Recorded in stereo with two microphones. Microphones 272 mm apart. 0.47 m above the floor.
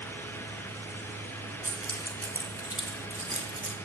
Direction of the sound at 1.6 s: 50° right (ahead or behind).